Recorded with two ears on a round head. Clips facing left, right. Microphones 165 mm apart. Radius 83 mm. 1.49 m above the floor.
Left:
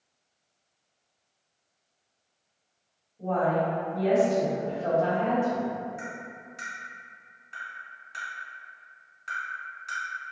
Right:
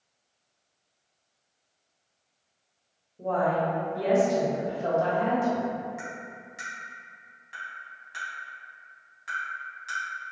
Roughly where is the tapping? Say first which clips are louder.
Even; centre.